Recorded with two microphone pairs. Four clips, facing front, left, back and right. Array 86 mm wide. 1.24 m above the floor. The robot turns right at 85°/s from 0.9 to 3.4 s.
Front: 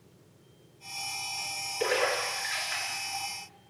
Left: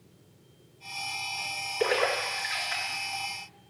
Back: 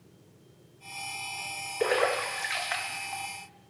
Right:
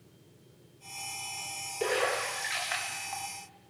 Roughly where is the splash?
Behind left.